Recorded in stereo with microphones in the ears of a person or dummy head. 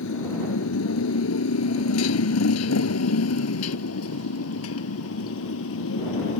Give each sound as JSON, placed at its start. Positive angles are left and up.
{"t": 0.0, "sound": "a motorcycle", "side_deg": 80}